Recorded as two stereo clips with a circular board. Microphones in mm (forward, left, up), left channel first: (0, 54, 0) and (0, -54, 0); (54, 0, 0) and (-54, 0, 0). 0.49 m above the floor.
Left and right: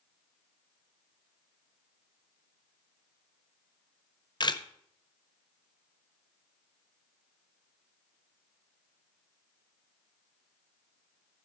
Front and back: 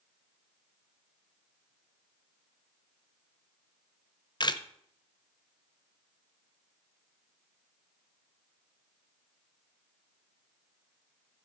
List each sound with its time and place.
4.4 s a camera shutter: 45° left, 0.7 m